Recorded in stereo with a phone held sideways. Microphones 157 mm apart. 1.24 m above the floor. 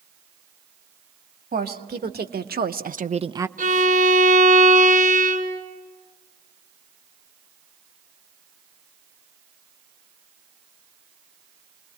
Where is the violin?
65° right (ahead or behind), 3 m.